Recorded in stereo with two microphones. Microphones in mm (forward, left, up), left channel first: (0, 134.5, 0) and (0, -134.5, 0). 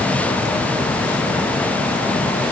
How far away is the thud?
No thud in this recording.